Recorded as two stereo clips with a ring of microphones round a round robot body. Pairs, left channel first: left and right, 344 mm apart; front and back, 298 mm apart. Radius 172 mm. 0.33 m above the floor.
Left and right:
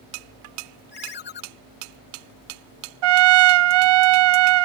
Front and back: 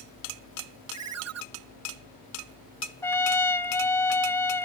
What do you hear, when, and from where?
0.9 s a ringtone: 150° left
3.0 s a trumpet: 85° right